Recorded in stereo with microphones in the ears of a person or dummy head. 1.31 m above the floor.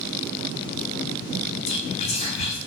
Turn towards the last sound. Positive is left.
turn(degrees=30)  # may be behind; listen again after turning